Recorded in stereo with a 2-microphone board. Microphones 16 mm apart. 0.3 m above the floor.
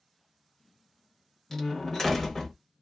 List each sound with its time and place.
1.5 s a door slam: 20° left (ahead or behind), 1.0 m